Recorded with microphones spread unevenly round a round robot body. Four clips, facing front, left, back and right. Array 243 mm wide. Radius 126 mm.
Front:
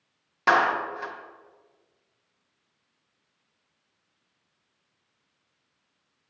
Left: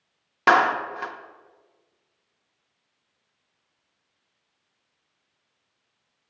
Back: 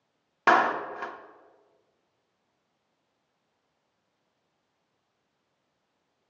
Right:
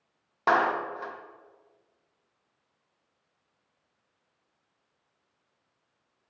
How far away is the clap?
About 0.6 m.